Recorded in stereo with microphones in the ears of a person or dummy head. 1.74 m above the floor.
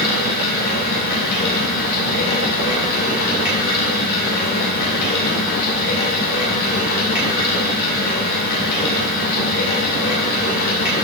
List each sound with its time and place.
0.0 s running water: 55° left (ahead or behind), 3 m